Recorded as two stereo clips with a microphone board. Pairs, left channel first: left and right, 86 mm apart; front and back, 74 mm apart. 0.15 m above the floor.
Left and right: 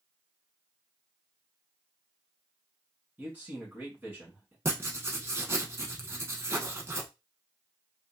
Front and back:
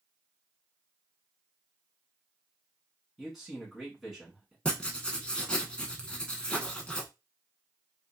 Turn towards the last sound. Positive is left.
turn(degrees=-65)